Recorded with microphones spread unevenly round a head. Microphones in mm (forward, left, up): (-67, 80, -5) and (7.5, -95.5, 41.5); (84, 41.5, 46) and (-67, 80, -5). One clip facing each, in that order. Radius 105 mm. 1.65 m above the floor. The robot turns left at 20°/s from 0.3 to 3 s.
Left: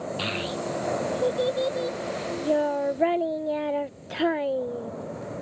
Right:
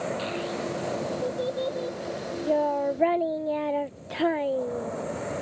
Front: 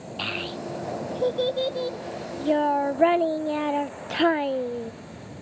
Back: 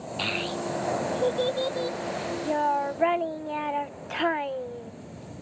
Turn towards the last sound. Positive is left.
turn(degrees=20)